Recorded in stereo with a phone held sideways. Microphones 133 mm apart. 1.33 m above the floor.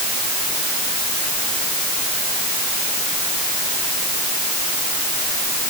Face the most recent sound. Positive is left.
No sound to turn to.